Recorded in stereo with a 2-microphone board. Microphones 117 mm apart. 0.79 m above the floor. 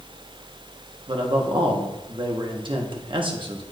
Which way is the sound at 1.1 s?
45° right (ahead or behind).